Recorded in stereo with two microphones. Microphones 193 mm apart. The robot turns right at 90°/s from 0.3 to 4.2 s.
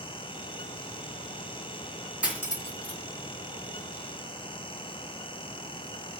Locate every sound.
2.2 s cutlery clinking: 5° right (ahead or behind), 3.5 m; by 3.0 s 65° left (ahead or behind), 3.5 m